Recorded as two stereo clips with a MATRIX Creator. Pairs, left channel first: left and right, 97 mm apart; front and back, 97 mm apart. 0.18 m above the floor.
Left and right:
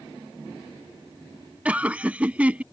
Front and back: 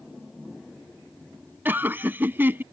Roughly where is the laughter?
Behind right.